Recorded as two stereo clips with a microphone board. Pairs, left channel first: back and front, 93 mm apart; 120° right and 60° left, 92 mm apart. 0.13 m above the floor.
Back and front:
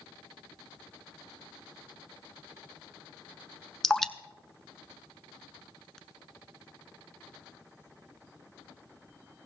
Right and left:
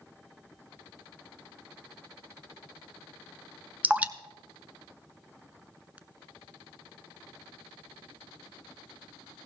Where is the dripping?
105° left, 0.5 m.